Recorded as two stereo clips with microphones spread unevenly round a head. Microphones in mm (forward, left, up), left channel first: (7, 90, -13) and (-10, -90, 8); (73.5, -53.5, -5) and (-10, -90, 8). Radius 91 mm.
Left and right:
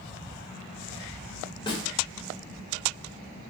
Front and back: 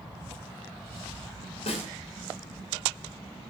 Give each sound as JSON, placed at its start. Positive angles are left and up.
{"t": 1.7, "sound": "a snare drum", "azimuth_deg": 15, "distance_m": 3.0}